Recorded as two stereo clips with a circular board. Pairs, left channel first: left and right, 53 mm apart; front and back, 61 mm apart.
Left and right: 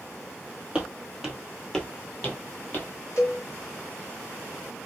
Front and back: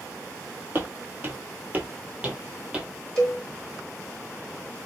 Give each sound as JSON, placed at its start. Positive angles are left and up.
{"t": 0.8, "sound": "footsteps", "azimuth_deg": -150, "distance_m": 1.2}
{"t": 3.2, "sound": "a cowbell", "azimuth_deg": 85, "distance_m": 1.5}